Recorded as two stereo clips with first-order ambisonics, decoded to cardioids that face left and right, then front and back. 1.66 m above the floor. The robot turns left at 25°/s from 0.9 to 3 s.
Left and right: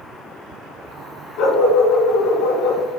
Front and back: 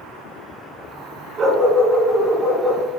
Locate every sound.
1.4 s a dog barking: 120° left, 3 m; by 2.8 s 85° left, 3 m